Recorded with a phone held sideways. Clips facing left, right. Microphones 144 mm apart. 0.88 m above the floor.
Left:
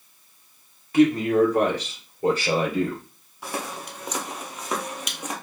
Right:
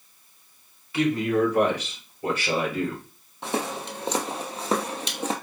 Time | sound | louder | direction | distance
0.9 | a man speaking | left 5 dB | 45° left (ahead or behind) | 1.7 m
3.4 | footsteps | right 4 dB | 25° right (ahead or behind) | 1.2 m